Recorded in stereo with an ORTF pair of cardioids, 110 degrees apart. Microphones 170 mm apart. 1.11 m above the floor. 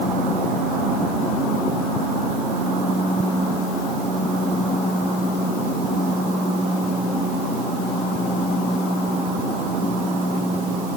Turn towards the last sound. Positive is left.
No sound to turn to.